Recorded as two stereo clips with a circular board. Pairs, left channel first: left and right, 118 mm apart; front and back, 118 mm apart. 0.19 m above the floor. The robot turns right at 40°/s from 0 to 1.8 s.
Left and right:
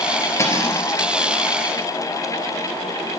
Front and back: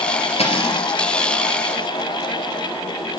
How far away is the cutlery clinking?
About 2.5 m.